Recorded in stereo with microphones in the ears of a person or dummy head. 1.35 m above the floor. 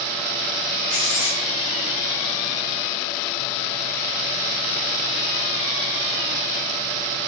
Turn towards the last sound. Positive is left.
turn(degrees=45)  # may be behind; listen again after turning